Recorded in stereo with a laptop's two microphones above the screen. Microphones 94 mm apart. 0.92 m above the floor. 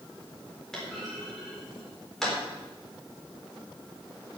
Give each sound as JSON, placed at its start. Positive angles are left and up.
{"t": 0.7, "sound": "a clunk", "side_deg": 5, "distance_m": 3.5}